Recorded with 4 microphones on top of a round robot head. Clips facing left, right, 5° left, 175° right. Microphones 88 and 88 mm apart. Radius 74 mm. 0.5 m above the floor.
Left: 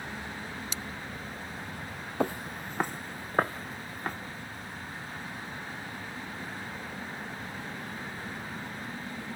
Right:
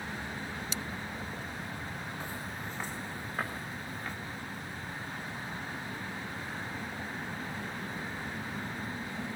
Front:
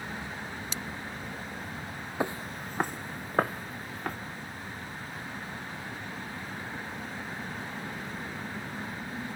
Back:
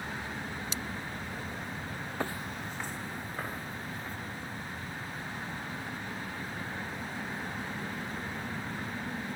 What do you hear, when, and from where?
2.2 s footsteps: 80° left, 0.6 m; by 4.1 s 40° left, 3 m